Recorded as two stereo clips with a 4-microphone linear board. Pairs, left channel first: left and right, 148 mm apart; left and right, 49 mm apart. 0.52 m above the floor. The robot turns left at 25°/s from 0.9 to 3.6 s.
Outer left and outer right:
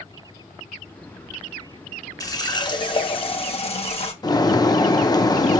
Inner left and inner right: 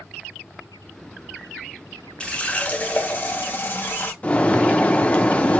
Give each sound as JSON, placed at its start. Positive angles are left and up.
{"t": 2.2, "sound": "a running tap", "azimuth_deg": 145, "distance_m": 0.8}
{"t": 4.2, "sound": "a bird", "side_deg": 25, "distance_m": 0.6}